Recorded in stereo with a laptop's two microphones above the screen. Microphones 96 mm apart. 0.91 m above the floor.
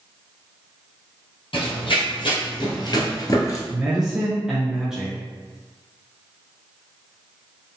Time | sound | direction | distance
1.5 | running footsteps | 65° left (ahead or behind) | 1.9 m
3.7 | a man speaking | 5° right (ahead or behind) | 0.7 m